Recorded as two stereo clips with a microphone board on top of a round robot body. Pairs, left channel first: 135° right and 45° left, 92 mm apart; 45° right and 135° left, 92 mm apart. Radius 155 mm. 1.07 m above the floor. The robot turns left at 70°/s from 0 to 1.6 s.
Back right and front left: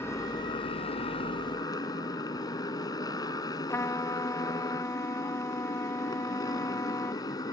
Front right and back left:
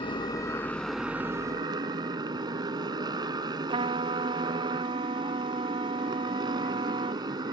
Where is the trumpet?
160° left.